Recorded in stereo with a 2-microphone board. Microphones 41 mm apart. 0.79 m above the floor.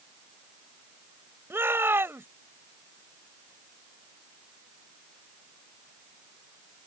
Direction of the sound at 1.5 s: 70° right (ahead or behind).